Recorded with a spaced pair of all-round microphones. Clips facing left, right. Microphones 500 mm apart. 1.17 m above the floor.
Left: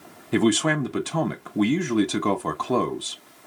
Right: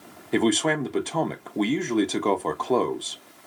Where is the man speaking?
30° left (ahead or behind), 0.5 m.